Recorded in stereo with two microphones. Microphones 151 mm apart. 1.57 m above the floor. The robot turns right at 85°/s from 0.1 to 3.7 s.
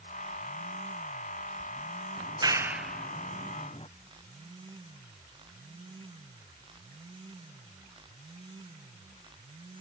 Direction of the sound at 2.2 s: 40° right (ahead or behind).